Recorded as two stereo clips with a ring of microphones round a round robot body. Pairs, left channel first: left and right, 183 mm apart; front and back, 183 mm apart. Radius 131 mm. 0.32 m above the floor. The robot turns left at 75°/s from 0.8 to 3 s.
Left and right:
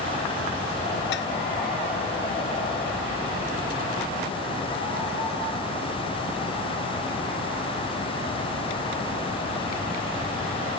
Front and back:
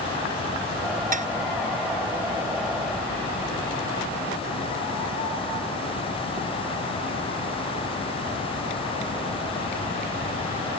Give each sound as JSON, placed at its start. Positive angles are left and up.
{"t": 1.1, "sound": "dishes clattering", "azimuth_deg": 135}